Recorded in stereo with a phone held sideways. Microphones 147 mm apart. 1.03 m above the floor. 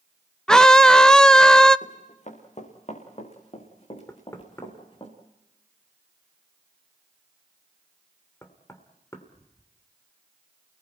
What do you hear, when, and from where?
0.5 s a scream: 5° left (ahead or behind), 0.5 m
1.8 s running footsteps: 60° left (ahead or behind), 4.5 m; by 5.1 s 35° left (ahead or behind), 5.5 m
4.1 s knocking: 20° left (ahead or behind), 2.5 m